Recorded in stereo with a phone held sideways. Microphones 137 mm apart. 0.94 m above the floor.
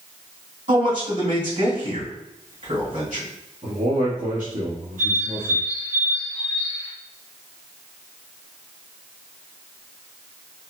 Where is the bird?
80° right, 1.8 m.